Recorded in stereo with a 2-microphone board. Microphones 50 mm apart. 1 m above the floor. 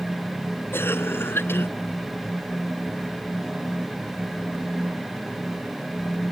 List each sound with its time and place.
0.7 s a cough: 50° left (ahead or behind)